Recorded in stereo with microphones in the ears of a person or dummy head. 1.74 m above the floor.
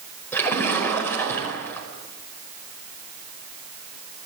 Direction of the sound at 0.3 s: 10° left (ahead or behind).